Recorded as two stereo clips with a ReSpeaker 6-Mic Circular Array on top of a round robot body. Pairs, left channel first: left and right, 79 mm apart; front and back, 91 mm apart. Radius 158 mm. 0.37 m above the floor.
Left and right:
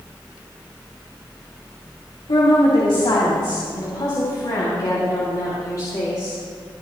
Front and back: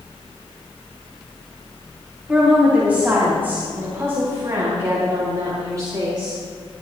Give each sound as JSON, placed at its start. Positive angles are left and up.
{"t": 2.3, "sound": "a woman speaking", "azimuth_deg": 100, "distance_m": 3.5}